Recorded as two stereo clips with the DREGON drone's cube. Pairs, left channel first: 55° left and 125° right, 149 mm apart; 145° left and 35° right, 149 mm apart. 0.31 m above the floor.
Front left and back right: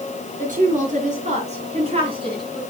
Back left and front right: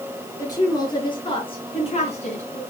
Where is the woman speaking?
150° right, 4.5 m; by 2.6 s 175° left, 3.5 m.